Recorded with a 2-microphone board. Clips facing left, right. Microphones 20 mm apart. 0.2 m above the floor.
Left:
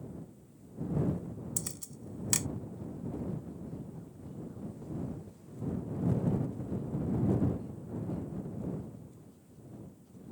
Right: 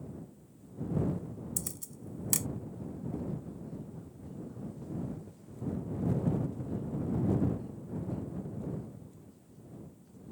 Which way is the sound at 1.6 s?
20° left (ahead or behind).